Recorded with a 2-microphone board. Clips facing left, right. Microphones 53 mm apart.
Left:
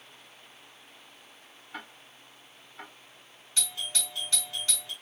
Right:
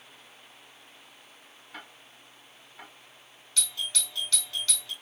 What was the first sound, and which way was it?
Ticking, 10° left (ahead or behind).